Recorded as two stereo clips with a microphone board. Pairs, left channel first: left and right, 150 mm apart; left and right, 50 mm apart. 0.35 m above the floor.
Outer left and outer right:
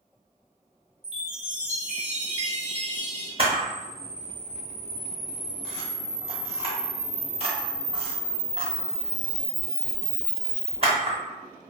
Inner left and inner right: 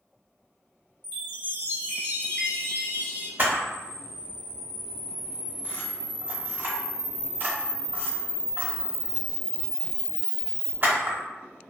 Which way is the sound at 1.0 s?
45° left (ahead or behind).